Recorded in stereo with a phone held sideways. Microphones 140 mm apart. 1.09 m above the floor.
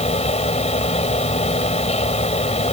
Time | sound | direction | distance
0.0 | a fan | 50° left (ahead or behind) | ?